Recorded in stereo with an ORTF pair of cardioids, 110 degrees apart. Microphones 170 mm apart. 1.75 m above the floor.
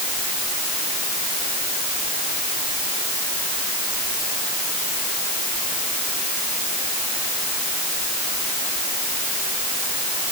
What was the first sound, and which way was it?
Only background noise.